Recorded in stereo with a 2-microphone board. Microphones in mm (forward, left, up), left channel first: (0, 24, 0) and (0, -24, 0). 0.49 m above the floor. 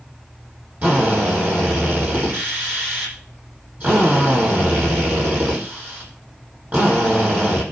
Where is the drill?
40° right (ahead or behind), 9.5 m.